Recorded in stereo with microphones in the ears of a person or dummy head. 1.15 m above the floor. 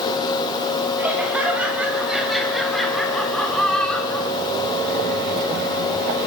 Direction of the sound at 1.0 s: 5° right (ahead or behind).